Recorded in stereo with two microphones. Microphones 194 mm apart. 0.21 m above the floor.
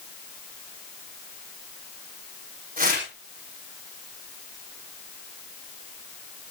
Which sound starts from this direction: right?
Tearing paper, at 2.8 s.